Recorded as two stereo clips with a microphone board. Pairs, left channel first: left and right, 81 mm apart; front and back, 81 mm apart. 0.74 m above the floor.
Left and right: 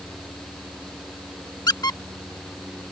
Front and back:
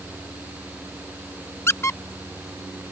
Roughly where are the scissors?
No scissors in this recording.